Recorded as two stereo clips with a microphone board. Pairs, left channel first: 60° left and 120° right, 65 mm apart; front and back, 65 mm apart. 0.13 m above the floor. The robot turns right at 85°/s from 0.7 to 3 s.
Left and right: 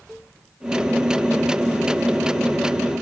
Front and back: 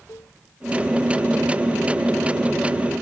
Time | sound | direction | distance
0.1 | a cowbell | 25° right | ?